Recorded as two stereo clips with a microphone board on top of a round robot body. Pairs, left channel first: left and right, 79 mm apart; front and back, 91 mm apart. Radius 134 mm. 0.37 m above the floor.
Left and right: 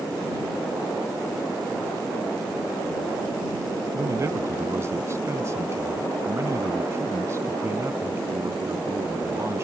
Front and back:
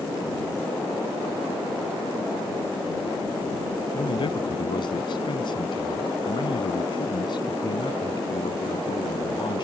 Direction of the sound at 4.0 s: 35° right.